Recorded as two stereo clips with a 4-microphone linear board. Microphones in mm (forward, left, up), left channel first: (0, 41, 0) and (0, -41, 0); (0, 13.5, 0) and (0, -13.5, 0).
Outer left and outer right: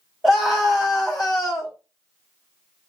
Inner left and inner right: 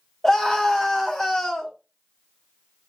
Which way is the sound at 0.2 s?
5° right (ahead or behind).